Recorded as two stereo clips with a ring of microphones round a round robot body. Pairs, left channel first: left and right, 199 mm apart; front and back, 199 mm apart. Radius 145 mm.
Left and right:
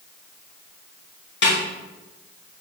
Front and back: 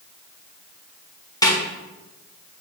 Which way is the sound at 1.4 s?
70° left.